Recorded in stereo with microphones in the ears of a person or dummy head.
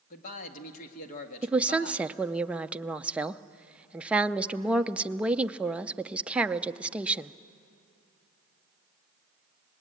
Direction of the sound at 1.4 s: 10° right (ahead or behind).